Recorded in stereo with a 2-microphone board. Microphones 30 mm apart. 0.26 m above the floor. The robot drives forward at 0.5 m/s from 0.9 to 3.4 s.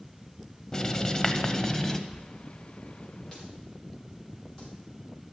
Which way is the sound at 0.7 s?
25° left (ahead or behind).